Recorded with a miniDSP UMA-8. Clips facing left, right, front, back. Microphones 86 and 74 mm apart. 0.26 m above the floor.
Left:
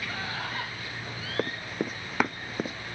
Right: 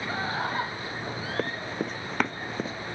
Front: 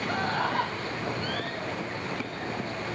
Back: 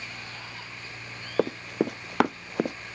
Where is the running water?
25° right.